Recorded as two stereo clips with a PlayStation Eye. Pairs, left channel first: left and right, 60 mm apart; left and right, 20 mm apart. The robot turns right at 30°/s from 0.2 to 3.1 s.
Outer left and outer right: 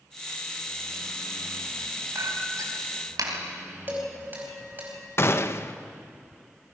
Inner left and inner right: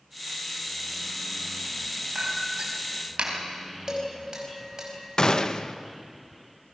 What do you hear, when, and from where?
2.1 s a clink: 55° right (ahead or behind), 3.5 m; by 3.4 s 85° right, 3.5 m
3.9 s dishes clattering: 30° right (ahead or behind), 5 m
5.2 s a gunshot: 45° left (ahead or behind), 0.8 m